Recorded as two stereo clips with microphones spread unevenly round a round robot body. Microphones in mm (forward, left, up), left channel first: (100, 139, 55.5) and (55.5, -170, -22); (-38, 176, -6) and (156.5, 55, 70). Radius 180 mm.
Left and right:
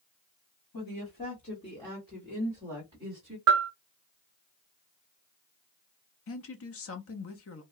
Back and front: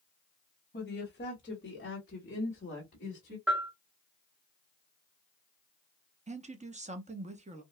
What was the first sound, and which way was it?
A woman speaking, 140° left.